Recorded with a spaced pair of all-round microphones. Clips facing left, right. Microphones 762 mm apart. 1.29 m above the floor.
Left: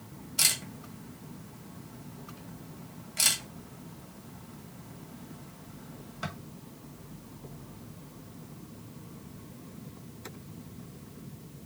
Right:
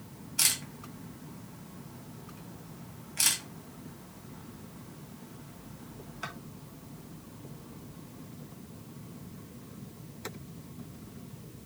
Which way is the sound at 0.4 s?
65° left (ahead or behind).